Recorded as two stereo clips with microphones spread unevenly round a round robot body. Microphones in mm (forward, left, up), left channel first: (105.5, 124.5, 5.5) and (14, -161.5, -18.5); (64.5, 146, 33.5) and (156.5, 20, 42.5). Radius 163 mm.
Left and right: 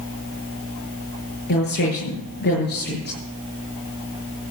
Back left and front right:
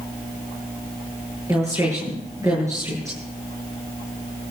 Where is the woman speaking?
15° left, 9 m.